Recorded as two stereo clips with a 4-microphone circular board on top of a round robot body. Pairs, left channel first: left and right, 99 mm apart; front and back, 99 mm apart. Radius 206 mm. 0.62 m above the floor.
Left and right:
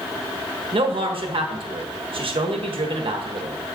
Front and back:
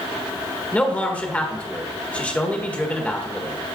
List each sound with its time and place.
0.7 s a man speaking: 75° right, 1.4 m